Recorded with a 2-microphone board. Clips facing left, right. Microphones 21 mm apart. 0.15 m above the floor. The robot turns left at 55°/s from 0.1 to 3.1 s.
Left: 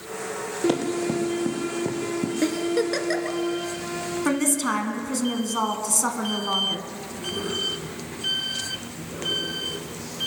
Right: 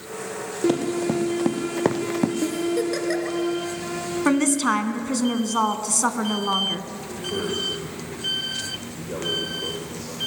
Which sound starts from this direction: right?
A man speaking, at 7.1 s.